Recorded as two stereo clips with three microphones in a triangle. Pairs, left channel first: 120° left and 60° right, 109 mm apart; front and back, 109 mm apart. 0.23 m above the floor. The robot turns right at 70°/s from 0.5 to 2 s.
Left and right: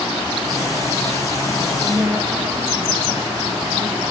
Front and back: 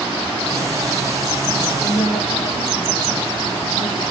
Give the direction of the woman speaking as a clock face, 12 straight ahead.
12 o'clock.